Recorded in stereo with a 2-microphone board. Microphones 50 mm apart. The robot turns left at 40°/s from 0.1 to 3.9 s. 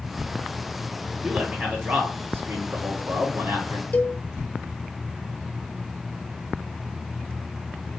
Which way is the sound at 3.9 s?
40° left (ahead or behind).